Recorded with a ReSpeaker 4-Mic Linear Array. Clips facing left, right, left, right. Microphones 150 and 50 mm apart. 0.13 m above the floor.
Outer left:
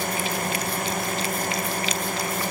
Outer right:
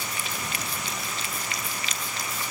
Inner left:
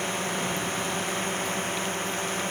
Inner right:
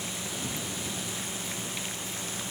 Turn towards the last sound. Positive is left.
turn(degrees=50)  # may be behind; listen again after turning